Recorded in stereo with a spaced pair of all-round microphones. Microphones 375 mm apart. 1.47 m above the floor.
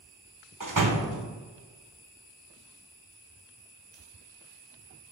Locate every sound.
0.6 s a door slam: 55° right (ahead or behind), 0.9 m